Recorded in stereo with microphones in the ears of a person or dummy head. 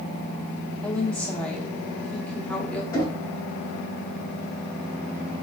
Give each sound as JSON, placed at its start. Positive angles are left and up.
{"t": 0.8, "sound": "a woman speaking", "side_deg": 5, "distance_m": 0.8}
{"t": 2.9, "sound": "knocking", "side_deg": 20, "distance_m": 1.4}